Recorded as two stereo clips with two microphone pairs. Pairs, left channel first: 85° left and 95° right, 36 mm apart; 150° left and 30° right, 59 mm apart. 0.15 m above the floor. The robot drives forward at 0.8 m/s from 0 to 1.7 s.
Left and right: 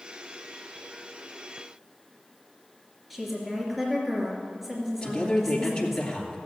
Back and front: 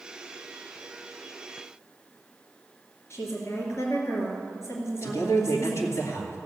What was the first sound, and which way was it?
A woman speaking, 175° left.